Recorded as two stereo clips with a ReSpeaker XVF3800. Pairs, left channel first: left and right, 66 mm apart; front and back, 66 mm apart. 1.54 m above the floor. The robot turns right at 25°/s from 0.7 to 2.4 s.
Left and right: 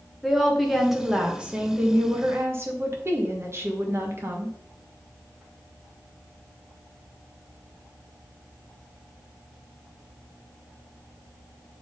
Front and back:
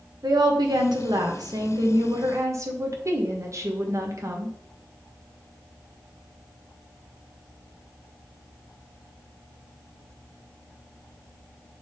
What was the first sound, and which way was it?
A woman speaking, straight behind.